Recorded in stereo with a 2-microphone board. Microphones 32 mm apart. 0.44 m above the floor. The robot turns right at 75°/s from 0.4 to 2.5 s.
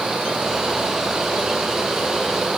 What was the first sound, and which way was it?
Only background noise.